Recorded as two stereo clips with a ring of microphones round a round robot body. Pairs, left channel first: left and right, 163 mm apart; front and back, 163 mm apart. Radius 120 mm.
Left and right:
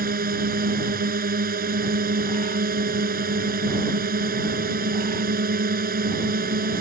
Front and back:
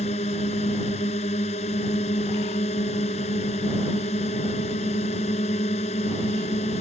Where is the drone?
65° right.